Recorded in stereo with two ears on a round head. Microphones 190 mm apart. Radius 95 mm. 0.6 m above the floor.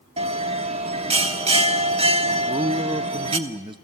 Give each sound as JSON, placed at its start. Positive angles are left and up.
{"t": 0.2, "sound": "a bell", "side_deg": -30, "distance_m": 1.0}
{"t": 2.4, "sound": "a man speaking", "side_deg": -20, "distance_m": 0.8}